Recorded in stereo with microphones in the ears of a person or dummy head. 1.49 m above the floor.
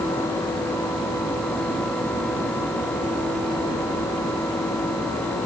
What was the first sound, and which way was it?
Only background noise.